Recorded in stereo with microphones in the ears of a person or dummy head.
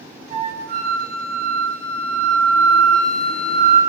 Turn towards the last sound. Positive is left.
turn(degrees=-45)  # may be behind; listen again after turning